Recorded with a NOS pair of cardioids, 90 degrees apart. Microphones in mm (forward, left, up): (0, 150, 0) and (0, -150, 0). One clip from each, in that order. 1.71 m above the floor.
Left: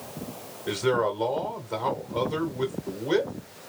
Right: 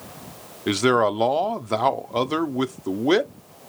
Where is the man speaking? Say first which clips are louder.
Right 6 dB; 60° right, 1.1 m.